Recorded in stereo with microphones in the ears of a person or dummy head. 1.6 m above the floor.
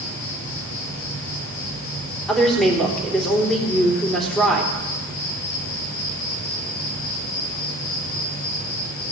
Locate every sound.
0.0 s an insect: 70° left (ahead or behind), 4 m
2.3 s a woman speaking: 5° left (ahead or behind), 3.5 m